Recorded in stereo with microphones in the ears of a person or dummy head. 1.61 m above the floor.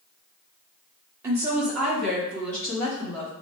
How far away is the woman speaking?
About 0.9 m.